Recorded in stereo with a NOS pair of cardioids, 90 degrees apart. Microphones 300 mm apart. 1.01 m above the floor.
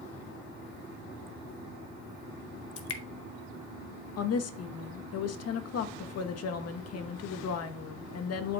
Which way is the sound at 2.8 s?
50° left.